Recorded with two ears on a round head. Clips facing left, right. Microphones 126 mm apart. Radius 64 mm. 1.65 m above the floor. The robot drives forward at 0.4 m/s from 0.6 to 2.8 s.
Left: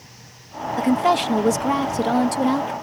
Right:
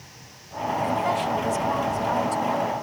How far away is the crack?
I don't hear a crack.